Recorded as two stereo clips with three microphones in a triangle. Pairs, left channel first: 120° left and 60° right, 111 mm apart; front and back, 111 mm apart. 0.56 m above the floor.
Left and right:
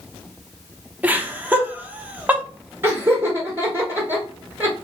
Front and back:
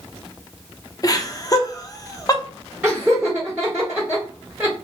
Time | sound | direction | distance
1.0 | laughter | straight ahead | 0.7 m
2.8 | laughter | 110° right | 1.2 m